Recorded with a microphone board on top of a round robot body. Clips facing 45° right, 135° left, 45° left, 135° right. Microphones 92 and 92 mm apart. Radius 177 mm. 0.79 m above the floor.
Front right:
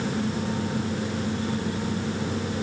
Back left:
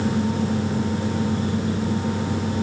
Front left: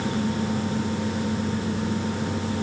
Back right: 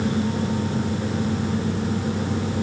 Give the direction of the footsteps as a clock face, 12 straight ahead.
I don't hear footsteps.